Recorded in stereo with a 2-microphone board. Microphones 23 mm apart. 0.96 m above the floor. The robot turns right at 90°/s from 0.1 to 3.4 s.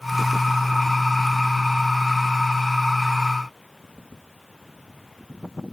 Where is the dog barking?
No dog barking in this recording.